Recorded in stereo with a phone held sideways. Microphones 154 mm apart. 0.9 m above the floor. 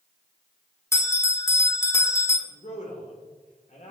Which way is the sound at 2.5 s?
55° left (ahead or behind).